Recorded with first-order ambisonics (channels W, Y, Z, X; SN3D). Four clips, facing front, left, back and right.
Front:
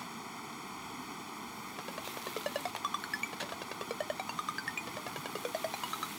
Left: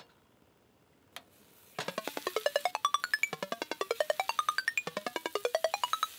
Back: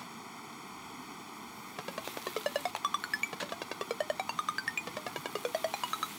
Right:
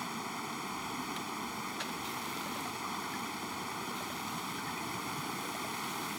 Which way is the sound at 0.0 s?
80° right.